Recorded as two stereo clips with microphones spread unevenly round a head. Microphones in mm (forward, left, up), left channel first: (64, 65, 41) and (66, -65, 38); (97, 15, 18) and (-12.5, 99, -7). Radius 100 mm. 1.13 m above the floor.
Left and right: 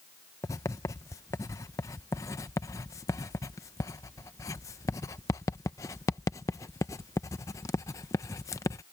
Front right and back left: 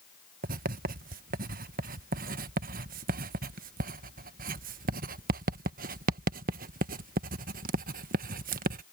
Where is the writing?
165° left.